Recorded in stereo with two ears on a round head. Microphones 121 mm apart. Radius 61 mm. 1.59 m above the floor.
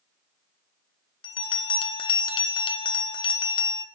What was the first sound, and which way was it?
A bell, 35° left (ahead or behind).